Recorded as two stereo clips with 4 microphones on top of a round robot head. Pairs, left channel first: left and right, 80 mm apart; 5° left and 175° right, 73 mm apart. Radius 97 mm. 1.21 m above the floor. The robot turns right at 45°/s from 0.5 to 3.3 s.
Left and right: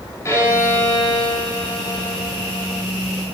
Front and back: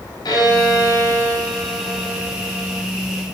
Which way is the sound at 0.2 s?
35° left.